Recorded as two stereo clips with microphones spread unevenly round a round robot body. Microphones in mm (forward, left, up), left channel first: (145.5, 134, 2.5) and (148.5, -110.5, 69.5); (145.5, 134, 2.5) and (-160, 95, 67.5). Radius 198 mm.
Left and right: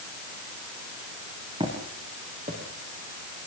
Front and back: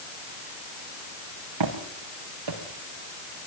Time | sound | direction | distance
1.6 | footsteps | 165° right | 4.5 m